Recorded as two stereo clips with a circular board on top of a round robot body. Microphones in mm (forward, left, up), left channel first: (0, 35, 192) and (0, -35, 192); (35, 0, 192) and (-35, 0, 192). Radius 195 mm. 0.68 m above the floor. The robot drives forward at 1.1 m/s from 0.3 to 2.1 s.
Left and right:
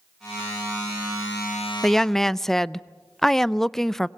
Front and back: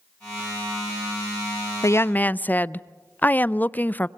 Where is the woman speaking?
5° left, 0.8 m; by 4.1 s 10° left, 0.7 m.